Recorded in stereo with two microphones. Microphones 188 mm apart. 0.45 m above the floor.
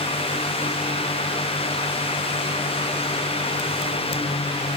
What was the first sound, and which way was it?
Only background noise.